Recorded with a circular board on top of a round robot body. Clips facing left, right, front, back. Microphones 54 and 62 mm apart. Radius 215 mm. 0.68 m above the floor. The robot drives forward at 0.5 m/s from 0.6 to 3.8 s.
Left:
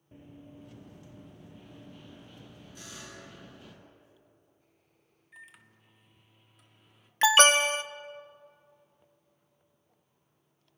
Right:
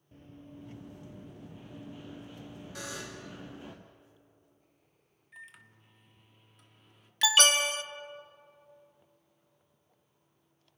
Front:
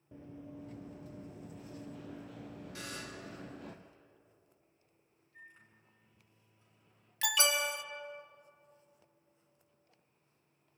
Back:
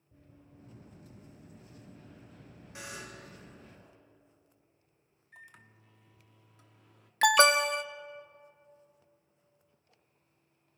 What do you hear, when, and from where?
0.1 s running footsteps: 15° left, 1.1 m; by 3.8 s 25° right, 1.8 m
2.8 s a buzzer: 110° right, 4.5 m
5.3 s a microwave: 175° left, 1.5 m
7.2 s an alarm: 145° left, 0.8 m